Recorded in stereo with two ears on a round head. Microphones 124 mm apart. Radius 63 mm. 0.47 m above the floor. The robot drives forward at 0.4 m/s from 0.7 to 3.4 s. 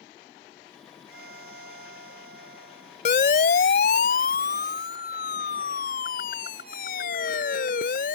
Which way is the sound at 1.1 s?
90° right.